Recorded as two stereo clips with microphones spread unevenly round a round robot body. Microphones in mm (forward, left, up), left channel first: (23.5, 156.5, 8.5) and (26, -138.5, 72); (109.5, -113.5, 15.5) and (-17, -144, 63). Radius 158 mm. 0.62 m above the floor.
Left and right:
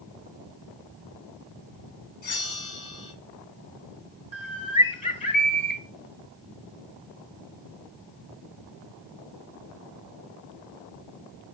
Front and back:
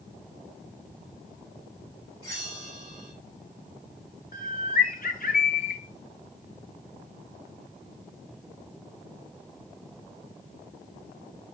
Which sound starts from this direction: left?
A bell, at 2.2 s.